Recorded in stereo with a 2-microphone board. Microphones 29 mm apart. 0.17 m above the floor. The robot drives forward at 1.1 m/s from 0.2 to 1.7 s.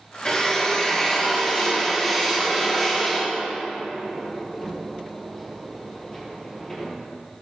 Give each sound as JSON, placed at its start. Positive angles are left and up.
{"t": 0.2, "sound": "a drill", "side_deg": 30, "distance_m": 1.6}